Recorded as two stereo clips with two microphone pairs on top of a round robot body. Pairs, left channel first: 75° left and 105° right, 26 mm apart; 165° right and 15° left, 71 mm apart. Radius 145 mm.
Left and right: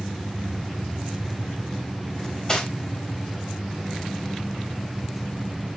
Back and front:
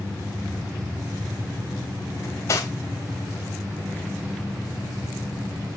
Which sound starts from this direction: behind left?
Cutlery clinking, at 2.2 s.